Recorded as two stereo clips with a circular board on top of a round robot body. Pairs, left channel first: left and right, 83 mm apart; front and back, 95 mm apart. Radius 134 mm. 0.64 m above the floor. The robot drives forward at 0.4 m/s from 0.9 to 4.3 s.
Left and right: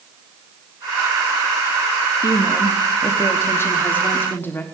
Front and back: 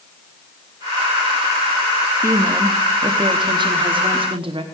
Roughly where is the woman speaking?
Behind left.